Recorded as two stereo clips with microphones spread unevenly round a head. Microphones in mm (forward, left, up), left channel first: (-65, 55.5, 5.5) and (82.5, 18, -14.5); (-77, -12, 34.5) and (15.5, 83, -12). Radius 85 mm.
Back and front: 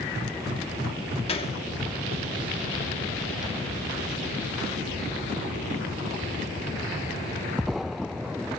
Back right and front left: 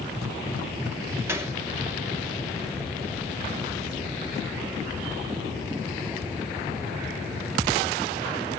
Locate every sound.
1.3 s a gunshot: 110° left, 2.5 m